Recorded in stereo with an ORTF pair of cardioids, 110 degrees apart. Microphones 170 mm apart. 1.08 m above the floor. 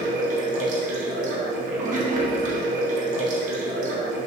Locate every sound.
0.0 s running water: 50° right, 0.9 m